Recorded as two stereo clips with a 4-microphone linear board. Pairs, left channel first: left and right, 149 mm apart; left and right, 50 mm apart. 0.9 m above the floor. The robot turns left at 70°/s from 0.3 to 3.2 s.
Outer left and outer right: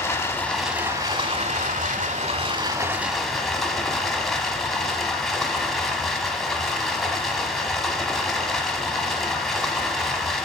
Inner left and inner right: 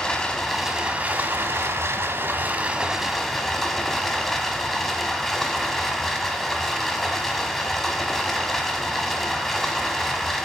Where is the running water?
20° left, 1.2 m; by 10.5 s straight behind, 1.2 m.